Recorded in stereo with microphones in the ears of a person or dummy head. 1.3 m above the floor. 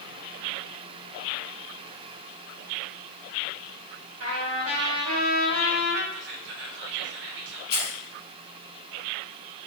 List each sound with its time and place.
4.2 s a trumpet: 70° right (ahead or behind), 0.9 m
6.1 s whispering: 60° right (ahead or behind), 0.8 m
7.7 s keys jangling: 35° left (ahead or behind), 1.5 m